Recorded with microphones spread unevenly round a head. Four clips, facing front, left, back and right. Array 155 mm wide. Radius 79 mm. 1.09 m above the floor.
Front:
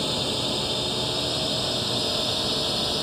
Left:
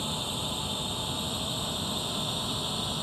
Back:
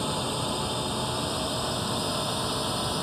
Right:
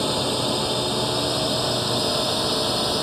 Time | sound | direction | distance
0.0 | a drone | 75° right | ?